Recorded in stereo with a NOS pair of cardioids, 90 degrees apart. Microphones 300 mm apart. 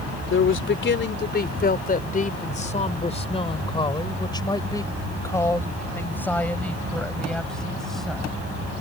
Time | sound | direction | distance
0.3 | a man speaking | 45° left | ?